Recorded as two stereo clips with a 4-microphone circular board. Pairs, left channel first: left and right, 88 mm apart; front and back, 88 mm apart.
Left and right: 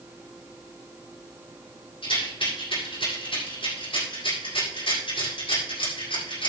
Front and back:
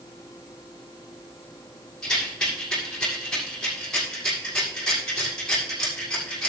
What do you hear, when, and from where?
2.0 s a rattle: 80° left, 7.5 m